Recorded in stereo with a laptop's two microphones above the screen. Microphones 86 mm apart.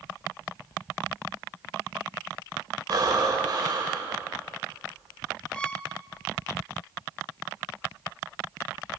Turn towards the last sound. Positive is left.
turn(degrees=15)  # may be behind; listen again after turning